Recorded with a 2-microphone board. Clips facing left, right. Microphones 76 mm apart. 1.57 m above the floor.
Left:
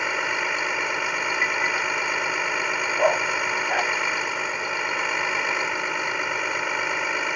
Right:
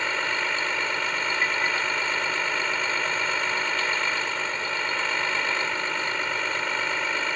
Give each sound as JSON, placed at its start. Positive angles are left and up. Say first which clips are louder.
{"t": 0.0, "sound": "a vehicle", "louder": "left 2 dB", "side_deg": 10}
{"t": 3.0, "sound": "a dog barking", "louder": "left 6 dB", "side_deg": 75}